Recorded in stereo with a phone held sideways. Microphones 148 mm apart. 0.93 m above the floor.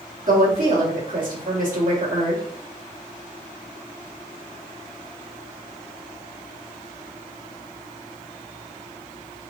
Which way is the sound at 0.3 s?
65° right (ahead or behind).